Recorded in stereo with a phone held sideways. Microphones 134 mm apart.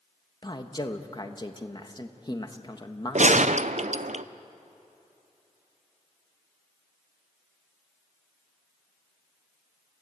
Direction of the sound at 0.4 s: 30° left (ahead or behind).